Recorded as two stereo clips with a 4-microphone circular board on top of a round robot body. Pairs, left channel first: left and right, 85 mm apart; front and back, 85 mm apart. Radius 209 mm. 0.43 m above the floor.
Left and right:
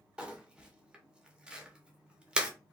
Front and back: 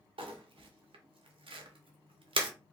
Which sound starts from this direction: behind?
Crumpling, at 0.2 s.